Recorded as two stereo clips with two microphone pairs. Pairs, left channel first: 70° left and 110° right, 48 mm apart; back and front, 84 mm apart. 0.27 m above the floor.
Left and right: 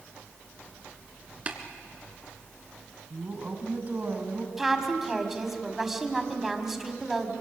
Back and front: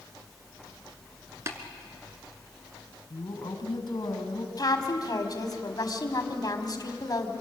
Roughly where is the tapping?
Ahead right.